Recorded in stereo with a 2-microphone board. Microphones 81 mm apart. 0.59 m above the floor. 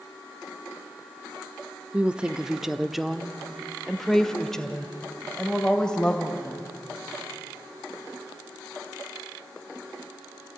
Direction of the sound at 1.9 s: 15° right (ahead or behind).